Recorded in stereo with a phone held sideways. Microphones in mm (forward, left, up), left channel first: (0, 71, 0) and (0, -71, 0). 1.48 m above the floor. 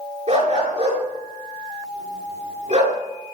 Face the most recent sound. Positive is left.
turn(degrees=-55)  # may be behind; listen again after turning